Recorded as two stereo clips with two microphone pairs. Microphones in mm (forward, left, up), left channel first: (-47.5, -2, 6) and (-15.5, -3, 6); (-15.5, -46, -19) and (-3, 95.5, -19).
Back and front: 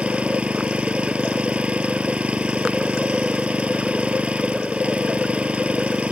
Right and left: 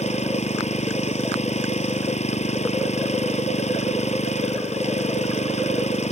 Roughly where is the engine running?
Ahead right.